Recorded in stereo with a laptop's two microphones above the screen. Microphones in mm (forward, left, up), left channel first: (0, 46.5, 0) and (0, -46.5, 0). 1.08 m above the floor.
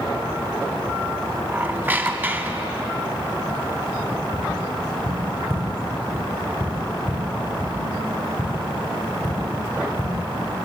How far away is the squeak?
About 2 m.